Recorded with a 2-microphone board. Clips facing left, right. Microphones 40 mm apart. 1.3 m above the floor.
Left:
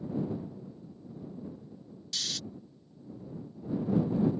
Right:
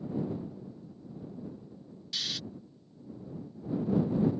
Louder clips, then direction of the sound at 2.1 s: Right 1 dB; 10° right (ahead or behind).